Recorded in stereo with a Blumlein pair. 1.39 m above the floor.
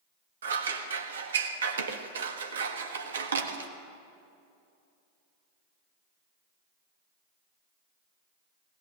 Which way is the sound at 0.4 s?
65° right.